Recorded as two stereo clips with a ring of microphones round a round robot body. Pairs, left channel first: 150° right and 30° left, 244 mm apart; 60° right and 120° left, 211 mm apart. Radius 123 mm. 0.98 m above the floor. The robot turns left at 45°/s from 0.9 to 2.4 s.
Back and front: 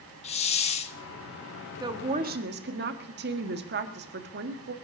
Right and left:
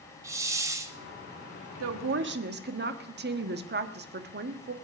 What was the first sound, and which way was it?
A hiss, straight behind.